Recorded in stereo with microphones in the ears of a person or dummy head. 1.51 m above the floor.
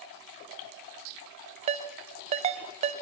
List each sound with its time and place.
1.7 s a ringtone: 35° right (ahead or behind), 0.9 m